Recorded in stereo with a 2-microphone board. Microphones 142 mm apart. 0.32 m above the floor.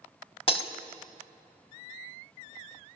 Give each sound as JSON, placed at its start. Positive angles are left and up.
{"t": 0.5, "sound": "breaking glass", "side_deg": 40, "distance_m": 0.8}